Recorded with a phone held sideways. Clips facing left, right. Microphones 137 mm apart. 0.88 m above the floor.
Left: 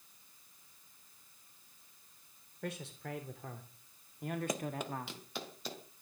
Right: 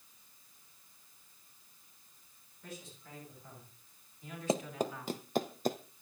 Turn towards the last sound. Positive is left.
turn(degrees=-50)  # may be behind; listen again after turning